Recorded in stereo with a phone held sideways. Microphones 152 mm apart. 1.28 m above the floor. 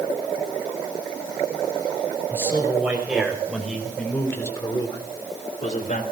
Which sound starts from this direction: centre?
A man speaking, at 2.3 s.